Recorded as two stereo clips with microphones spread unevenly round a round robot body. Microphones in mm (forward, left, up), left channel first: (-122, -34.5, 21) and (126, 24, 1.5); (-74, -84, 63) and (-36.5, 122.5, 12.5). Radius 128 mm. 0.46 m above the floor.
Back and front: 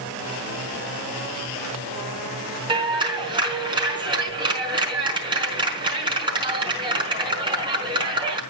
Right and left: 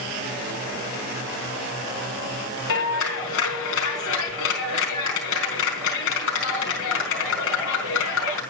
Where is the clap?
60° right, 4.5 m.